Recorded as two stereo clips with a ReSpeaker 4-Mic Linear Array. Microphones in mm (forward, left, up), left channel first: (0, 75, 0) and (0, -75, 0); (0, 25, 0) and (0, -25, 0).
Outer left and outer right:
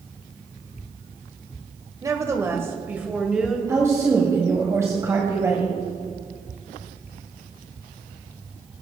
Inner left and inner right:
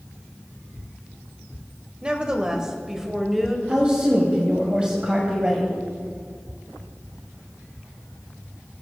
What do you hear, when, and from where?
2.0 s a woman speaking: 20° right (ahead or behind), 1.2 m; by 3.6 s 5° right (ahead or behind), 1.5 m
3.7 s a woman speaking: 20° right (ahead or behind), 1.8 m